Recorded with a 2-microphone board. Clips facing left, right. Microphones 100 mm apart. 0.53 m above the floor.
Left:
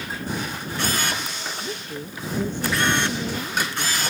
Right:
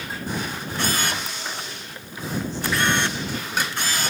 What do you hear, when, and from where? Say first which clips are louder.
1.6 s a woman speaking: left 6 dB; 55° left (ahead or behind)